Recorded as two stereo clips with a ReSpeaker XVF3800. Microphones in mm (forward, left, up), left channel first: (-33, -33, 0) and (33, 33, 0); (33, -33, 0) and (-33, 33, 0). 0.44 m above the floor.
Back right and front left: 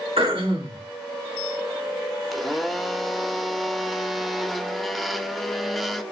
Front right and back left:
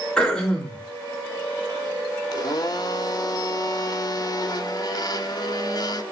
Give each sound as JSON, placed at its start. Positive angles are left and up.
{"t": 0.2, "sound": "throat clearing", "azimuth_deg": 35, "distance_m": 4.0}
{"t": 2.3, "sound": "a blender", "azimuth_deg": -45, "distance_m": 0.8}